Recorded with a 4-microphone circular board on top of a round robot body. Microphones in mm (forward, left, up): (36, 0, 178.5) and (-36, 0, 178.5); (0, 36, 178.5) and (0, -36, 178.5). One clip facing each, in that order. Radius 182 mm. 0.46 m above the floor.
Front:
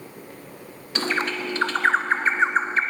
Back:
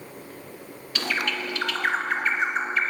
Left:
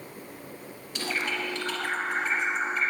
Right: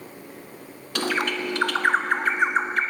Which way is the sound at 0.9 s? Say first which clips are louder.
Front 3 dB, right 6 dB; 60° right.